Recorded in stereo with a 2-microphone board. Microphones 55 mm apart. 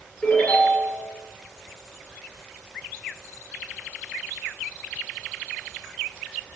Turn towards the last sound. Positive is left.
turn(degrees=35)  # may be behind; listen again after turning